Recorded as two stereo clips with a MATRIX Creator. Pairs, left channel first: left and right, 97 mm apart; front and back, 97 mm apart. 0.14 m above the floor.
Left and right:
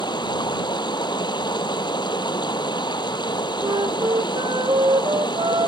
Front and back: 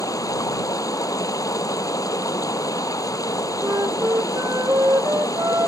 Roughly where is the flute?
Behind right.